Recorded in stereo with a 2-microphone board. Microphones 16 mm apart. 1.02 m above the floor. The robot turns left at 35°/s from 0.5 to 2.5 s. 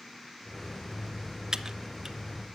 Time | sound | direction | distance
1.5 | typing on a keyboard | 50° right (ahead or behind) | 0.8 m